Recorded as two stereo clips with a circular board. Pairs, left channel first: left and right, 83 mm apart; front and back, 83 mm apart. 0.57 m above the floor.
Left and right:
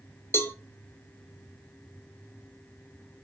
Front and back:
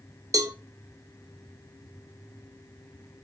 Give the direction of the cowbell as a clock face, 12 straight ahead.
7 o'clock.